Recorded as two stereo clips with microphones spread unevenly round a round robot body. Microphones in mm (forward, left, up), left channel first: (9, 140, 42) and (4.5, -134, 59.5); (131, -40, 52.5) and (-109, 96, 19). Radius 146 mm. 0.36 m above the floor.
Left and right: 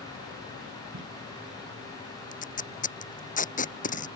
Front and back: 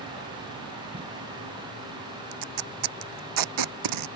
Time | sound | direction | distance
0.9 | tape being pulled | 140° right | ?
2.3 | tape being pulled | 155° left | ?